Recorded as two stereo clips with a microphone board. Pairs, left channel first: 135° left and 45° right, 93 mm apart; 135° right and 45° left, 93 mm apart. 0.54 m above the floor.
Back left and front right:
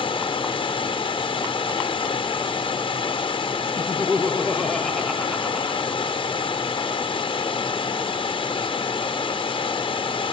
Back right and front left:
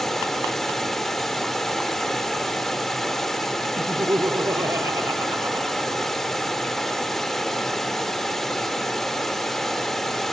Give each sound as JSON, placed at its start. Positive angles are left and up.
{"t": 0.0, "sound": "running water", "azimuth_deg": 140, "distance_m": 1.0}
{"t": 3.8, "sound": "laughter", "azimuth_deg": 50, "distance_m": 0.7}